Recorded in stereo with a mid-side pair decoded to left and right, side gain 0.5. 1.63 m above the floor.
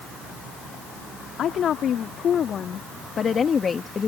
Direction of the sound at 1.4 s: 55° left.